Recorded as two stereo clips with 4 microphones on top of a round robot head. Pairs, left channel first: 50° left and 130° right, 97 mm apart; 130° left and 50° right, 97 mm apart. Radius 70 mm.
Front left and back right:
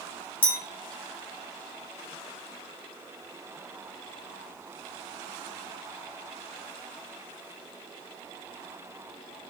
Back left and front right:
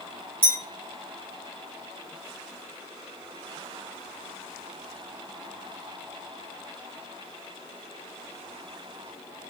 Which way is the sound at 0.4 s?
20° left.